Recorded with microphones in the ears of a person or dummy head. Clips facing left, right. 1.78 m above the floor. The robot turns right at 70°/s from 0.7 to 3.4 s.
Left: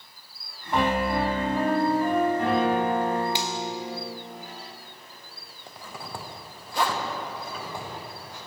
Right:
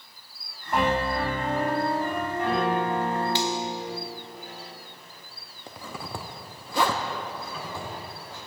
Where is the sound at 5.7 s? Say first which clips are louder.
Right 2 dB; 55° right (ahead or behind), 0.9 m.